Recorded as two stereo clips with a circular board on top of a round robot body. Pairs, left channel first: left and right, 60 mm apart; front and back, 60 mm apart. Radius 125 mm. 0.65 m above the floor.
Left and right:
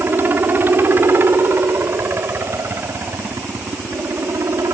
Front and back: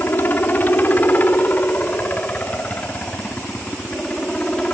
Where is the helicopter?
45° right; by 4.7 s 70° right.